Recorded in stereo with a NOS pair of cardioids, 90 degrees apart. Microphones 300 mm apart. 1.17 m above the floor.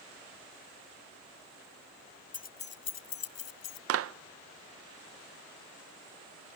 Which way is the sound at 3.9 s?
50° right.